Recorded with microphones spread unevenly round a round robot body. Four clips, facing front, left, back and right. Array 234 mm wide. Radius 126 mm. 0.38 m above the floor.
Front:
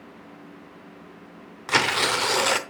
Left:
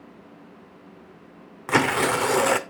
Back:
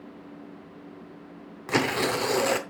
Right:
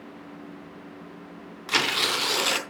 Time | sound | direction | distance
1.7 | tearing paper | 95° left | 0.7 m